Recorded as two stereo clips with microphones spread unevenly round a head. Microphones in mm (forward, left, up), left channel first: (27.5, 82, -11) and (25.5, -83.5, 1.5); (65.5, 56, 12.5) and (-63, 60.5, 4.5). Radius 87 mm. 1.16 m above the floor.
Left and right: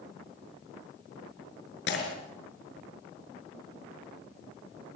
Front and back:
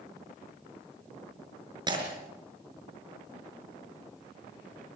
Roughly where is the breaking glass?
Behind left.